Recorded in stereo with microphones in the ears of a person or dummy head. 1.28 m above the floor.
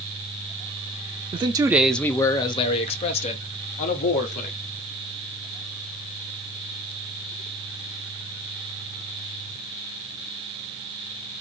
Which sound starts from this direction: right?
A man speaking, at 1.3 s.